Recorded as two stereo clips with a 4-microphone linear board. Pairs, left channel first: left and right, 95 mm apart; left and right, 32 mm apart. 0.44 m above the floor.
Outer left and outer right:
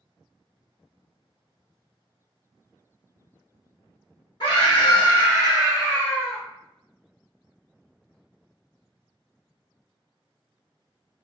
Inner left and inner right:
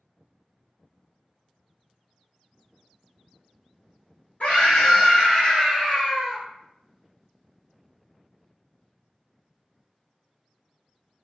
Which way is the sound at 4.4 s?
50° left (ahead or behind).